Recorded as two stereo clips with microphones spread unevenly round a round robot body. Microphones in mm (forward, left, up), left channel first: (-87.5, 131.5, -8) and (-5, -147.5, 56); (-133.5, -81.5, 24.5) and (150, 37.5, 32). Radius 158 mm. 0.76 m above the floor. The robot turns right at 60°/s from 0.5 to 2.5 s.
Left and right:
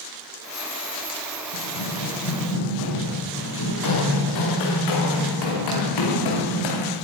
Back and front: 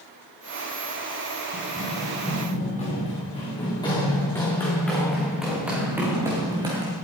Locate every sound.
1.5 s running footsteps: 80° left, 5.5 m; by 7.0 s 100° left, 4.5 m